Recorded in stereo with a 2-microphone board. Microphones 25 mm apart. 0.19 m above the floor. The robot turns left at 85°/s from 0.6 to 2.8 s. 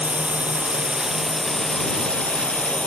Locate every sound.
0.0 s a drone: 110° right; by 2.9 s 65° left